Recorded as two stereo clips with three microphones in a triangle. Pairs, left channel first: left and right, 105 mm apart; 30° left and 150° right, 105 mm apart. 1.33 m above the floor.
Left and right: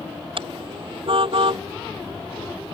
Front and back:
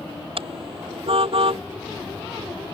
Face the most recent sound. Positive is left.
turn(degrees=-125)